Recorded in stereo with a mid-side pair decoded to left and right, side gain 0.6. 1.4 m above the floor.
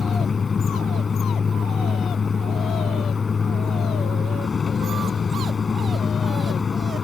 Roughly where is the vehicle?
Ahead left.